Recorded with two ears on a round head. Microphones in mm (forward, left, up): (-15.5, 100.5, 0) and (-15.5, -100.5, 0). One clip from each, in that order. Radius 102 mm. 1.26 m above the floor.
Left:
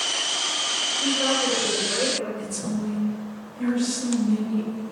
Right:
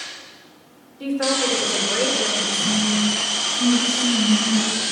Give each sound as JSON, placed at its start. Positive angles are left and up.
{"t": 1.0, "sound": "a woman speaking", "side_deg": -85, "distance_m": 4.5}
{"t": 2.4, "sound": "a woman speaking", "side_deg": 80, "distance_m": 4.5}